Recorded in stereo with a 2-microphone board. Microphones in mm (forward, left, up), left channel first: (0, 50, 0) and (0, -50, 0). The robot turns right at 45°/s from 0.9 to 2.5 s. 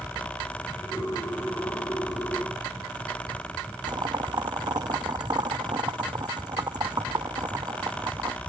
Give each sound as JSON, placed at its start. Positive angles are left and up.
{"t": 3.9, "sound": "boiling", "side_deg": -45}